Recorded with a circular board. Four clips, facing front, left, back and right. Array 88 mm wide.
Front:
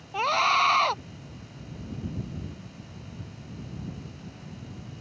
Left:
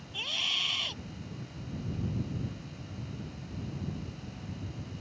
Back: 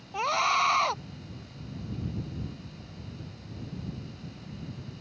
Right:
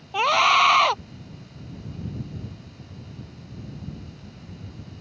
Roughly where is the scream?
Right.